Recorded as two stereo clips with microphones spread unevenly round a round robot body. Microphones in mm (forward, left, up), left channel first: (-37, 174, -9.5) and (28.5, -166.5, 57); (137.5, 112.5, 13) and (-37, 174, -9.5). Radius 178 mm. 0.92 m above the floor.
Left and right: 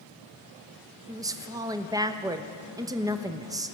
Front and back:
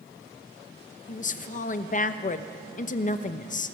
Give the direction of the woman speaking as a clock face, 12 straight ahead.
12 o'clock.